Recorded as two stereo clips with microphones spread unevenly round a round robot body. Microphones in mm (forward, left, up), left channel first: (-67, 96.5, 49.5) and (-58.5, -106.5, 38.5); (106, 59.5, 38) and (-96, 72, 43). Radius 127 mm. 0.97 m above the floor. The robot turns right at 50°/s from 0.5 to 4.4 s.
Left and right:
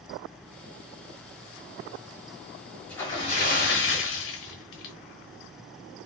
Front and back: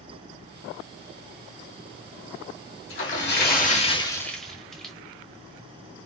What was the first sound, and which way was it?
A splash, 10° left.